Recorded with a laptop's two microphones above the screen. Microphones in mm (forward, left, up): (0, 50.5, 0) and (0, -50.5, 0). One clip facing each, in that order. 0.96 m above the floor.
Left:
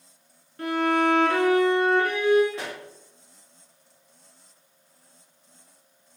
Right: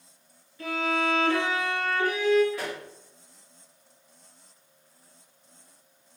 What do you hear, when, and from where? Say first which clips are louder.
0.6 s a violin: left 5 dB; 70° left (ahead or behind), 4.5 m
2.5 s a pop: right 1 dB; 25° left (ahead or behind), 3 m